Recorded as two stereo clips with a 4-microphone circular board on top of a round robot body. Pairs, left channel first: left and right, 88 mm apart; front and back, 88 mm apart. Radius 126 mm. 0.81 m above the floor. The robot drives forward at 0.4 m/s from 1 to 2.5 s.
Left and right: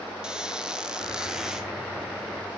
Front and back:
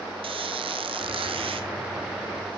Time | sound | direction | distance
0.2 | a squeak | 170° right | 1.1 m